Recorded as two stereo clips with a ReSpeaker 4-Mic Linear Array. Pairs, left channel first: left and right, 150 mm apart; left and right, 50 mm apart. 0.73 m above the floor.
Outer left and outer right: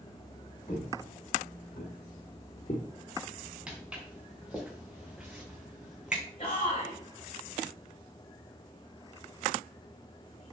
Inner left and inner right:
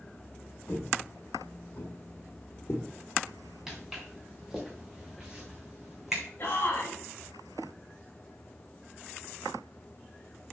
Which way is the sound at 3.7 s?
5° right (ahead or behind).